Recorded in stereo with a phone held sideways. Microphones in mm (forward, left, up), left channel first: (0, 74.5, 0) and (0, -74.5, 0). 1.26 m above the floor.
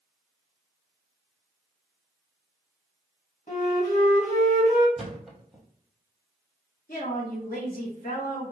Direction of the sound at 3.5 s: 60° left (ahead or behind).